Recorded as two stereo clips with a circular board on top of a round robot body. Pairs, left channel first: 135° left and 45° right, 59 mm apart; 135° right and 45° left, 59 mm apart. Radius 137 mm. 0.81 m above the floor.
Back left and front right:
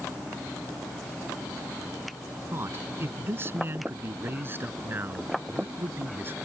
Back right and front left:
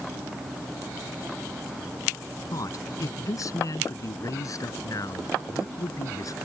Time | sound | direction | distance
2.5 | a man speaking | 100° right | ?